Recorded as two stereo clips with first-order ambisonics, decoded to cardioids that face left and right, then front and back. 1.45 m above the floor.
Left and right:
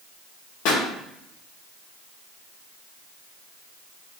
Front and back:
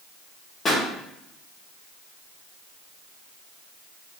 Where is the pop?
65° left, 0.8 m.